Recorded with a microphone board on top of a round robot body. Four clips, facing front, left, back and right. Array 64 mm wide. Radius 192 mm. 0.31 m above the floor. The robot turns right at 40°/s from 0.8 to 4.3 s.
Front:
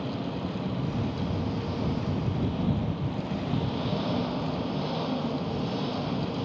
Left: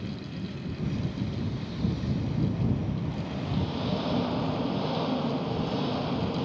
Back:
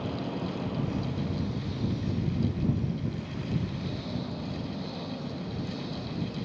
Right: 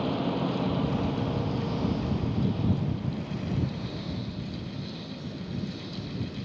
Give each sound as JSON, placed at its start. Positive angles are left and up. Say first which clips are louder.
{"t": 0.0, "sound": "an engine running", "louder": "right 9 dB, front 1 dB", "azimuth_deg": -90}